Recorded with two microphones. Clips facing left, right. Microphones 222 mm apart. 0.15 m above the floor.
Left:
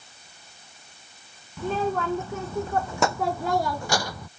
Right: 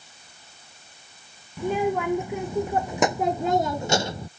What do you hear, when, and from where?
1.6 s a child speaking: 15° right (ahead or behind); by 4.3 s 25° right (ahead or behind)